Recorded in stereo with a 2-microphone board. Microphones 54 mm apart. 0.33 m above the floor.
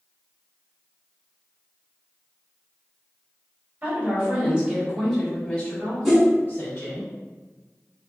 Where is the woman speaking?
35° right (ahead or behind), 1.9 m; by 7.0 s 50° left (ahead or behind), 2 m.